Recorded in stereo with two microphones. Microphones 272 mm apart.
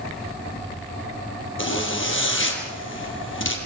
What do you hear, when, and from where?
1.6 s a zipper: 45° left (ahead or behind), 4.5 m